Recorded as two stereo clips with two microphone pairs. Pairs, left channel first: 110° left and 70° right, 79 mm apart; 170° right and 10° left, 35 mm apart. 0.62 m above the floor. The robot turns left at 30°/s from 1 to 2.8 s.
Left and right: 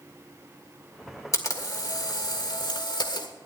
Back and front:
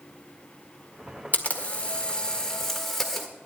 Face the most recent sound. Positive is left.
turn(degrees=110)